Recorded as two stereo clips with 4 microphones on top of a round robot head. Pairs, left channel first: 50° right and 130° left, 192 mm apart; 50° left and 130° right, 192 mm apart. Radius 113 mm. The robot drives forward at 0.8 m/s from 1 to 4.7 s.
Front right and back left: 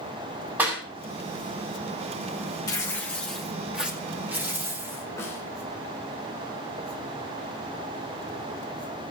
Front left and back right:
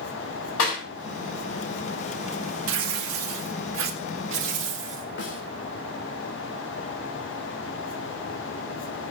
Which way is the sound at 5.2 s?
25° left.